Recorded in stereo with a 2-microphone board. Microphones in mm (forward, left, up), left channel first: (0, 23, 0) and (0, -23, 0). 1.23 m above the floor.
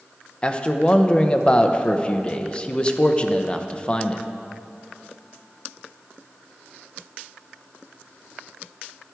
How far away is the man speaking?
About 0.7 m.